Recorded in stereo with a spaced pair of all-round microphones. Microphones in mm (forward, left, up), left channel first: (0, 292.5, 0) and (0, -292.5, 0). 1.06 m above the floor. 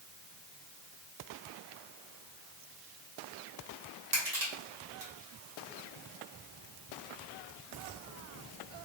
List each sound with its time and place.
4.1 s crushing: 75° right (ahead or behind), 1.6 m